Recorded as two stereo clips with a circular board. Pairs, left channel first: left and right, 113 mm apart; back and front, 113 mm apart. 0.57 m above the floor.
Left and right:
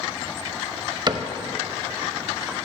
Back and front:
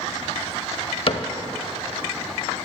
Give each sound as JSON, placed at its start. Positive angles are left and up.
{"t": 1.1, "sound": "a cupboard door", "azimuth_deg": -145, "distance_m": 0.6}